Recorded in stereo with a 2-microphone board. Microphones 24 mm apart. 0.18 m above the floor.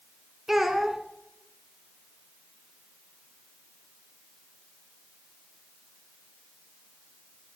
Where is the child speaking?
15° right (ahead or behind), 1.2 m.